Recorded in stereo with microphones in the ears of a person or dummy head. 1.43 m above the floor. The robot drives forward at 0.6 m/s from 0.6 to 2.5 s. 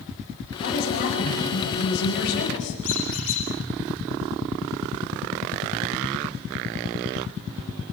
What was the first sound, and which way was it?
A woman speaking, 55° left (ahead or behind).